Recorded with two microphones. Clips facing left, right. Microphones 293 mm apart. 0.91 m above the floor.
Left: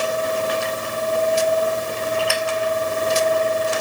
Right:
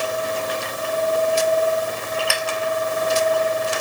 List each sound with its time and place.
Only background noise.